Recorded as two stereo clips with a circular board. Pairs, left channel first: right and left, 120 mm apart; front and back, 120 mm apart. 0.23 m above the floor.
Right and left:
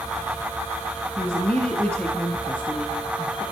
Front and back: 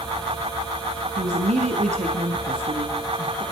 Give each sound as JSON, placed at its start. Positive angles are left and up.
{"t": 1.2, "sound": "a woman speaking", "azimuth_deg": -170, "distance_m": 3.5}